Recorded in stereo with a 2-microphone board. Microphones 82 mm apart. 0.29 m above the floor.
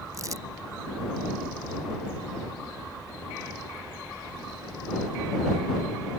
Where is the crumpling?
45° right (ahead or behind).